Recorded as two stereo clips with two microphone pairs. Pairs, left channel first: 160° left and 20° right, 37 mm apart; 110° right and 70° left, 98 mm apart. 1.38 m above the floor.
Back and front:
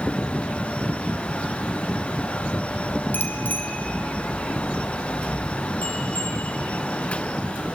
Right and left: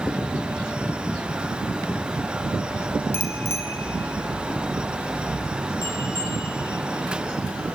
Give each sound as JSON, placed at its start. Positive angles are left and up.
{"t": 3.1, "sound": "a bicycle bell", "azimuth_deg": -175, "distance_m": 3.0}